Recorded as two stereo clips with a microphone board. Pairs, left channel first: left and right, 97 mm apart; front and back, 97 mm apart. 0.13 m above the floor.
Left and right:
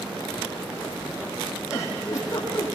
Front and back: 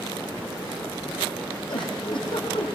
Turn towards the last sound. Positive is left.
turn(degrees=30)